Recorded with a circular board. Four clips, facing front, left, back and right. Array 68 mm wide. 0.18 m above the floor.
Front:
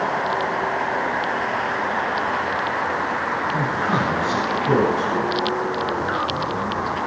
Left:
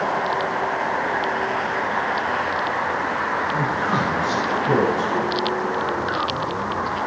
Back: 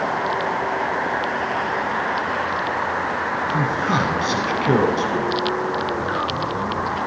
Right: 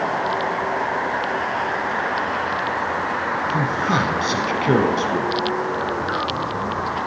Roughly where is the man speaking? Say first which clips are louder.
Right 1 dB, back 2 dB; behind right.